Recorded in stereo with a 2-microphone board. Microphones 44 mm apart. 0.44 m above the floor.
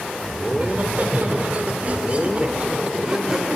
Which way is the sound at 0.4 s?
40° right (ahead or behind).